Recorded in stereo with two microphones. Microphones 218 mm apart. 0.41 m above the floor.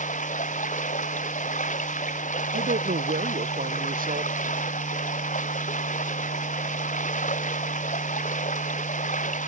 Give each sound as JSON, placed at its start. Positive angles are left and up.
{"t": 0.0, "sound": "running water", "side_deg": 35}
{"t": 2.5, "sound": "a woman speaking", "side_deg": -40}